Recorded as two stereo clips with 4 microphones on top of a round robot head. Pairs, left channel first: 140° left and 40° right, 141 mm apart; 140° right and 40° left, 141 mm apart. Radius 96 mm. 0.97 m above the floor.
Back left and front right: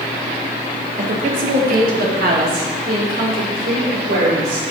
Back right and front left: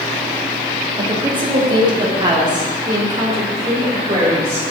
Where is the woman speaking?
15° right, 1.4 m; by 4.6 s 25° right, 4 m.